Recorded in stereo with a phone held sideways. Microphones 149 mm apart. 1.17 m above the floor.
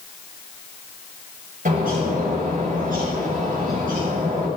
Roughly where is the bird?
Right.